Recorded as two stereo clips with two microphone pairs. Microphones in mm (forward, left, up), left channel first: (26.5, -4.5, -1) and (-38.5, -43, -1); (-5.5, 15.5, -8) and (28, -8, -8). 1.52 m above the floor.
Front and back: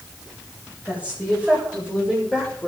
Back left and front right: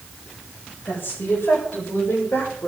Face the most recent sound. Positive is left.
turn(degrees=130)